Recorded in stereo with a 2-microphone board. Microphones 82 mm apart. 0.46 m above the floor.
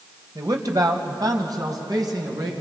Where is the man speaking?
50° right (ahead or behind), 1.6 m.